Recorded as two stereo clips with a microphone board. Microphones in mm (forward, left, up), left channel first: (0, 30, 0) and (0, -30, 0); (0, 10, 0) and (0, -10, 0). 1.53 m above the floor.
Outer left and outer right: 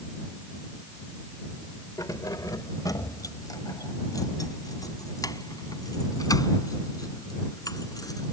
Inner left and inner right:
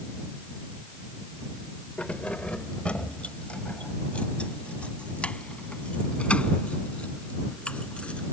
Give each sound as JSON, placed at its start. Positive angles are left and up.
{"t": 2.0, "sound": "keys jangling", "side_deg": 75}